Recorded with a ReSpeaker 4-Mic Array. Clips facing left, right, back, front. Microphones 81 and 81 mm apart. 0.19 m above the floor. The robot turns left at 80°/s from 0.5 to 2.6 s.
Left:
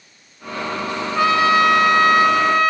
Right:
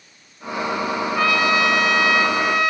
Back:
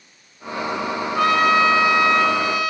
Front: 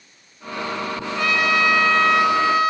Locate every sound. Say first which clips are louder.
1.1 s a trumpet: left 5 dB, back 4 dB; 165° left, 2.5 m; by 2.7 s 45° left, 2.5 m